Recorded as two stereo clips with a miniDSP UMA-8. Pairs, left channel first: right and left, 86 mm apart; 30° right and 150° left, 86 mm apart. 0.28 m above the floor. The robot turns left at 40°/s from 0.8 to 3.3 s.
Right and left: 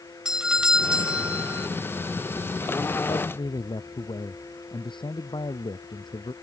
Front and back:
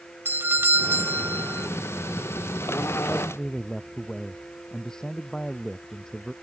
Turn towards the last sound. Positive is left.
turn(degrees=-115)